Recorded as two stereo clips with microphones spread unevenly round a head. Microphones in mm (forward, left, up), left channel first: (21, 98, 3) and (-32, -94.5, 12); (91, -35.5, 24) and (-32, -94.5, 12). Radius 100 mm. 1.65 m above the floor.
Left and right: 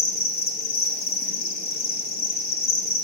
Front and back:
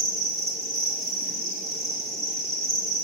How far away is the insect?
About 0.8 m.